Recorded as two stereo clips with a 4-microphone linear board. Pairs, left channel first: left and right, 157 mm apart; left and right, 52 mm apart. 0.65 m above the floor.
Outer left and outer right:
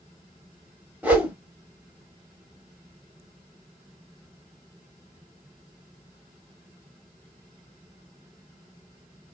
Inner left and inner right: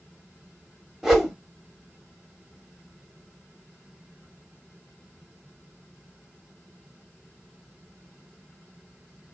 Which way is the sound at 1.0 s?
10° right (ahead or behind).